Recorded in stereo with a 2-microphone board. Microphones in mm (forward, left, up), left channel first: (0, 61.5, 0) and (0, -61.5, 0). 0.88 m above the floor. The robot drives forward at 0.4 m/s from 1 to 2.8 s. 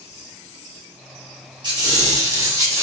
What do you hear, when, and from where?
1.6 s a squeak: 40° right (ahead or behind), 0.8 m; by 2.8 s 25° right (ahead or behind), 1.2 m